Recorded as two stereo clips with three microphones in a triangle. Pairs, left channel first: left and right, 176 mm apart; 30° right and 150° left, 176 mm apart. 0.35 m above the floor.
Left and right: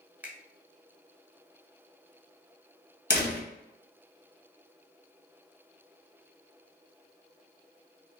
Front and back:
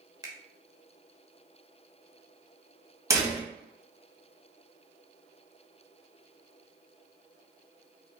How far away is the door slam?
About 1.6 m.